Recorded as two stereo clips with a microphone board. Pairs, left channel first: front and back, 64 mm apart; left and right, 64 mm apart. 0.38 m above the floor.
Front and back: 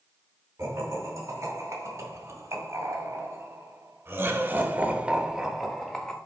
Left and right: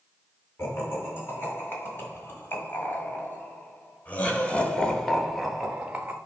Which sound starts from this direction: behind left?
Laughter, at 0.6 s.